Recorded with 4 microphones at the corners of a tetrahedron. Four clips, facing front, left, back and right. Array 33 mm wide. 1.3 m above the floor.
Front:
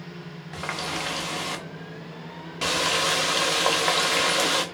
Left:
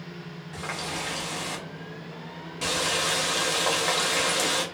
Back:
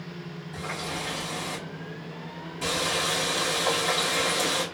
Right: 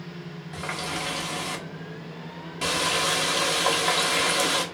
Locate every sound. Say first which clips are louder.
0.5 s a running tap: right 2 dB, front 3 dB; 10° right, 0.9 m